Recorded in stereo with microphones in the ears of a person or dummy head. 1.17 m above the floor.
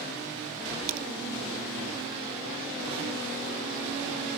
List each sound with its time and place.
0.9 s a crack: 45° right (ahead or behind)